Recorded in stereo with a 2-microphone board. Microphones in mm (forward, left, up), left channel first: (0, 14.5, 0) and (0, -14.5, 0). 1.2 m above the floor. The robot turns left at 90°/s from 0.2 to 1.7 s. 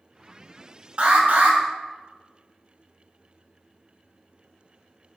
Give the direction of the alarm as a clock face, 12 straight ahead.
2 o'clock.